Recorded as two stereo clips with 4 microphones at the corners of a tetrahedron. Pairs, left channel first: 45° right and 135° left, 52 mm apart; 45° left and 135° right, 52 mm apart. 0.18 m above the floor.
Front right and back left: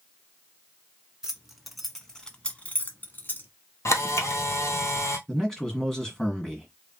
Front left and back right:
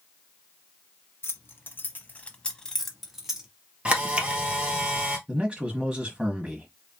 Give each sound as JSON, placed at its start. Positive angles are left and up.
{"t": 1.2, "sound": "keys jangling", "azimuth_deg": 60, "distance_m": 1.0}
{"t": 3.9, "sound": "a camera shutter", "azimuth_deg": -65, "distance_m": 1.2}
{"t": 5.3, "sound": "a man speaking", "azimuth_deg": -100, "distance_m": 1.2}